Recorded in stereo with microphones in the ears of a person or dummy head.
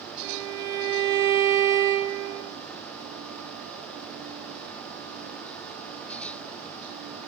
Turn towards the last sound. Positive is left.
turn(degrees=-55)  # may be behind; listen again after turning